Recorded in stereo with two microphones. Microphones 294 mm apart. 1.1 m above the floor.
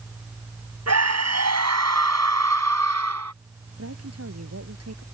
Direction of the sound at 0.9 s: 60° right (ahead or behind).